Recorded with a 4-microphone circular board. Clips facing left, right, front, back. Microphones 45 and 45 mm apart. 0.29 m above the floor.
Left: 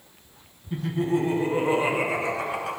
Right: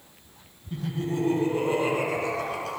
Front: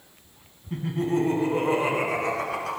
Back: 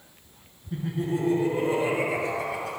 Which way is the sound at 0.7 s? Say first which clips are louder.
Left 5 dB, front 3 dB; 20° left.